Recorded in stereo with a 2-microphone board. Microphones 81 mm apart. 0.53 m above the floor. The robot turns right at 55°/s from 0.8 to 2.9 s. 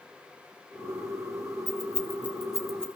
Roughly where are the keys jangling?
Right.